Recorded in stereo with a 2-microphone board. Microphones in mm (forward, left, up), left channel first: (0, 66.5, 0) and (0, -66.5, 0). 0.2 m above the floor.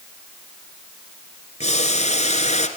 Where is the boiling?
55° left (ahead or behind), 2 m.